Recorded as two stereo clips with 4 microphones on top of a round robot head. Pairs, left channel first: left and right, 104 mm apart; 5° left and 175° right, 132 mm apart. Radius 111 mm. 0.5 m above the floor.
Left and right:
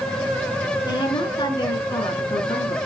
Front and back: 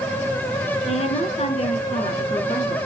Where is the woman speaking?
40° left, 8 m; by 2.8 s 45° left, 7 m.